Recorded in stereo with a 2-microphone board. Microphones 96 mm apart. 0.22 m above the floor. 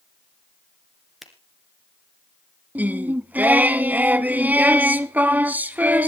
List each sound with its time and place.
1.2 s a finger snap: centre (ahead or behind), 2 m
2.8 s singing: 15° right (ahead or behind), 0.7 m